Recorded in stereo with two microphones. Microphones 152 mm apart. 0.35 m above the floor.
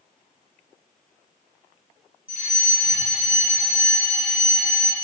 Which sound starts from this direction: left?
A fire alarm, at 2.3 s.